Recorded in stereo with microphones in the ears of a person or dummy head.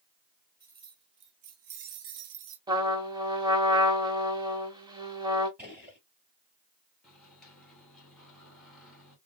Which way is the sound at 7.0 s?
5° left (ahead or behind).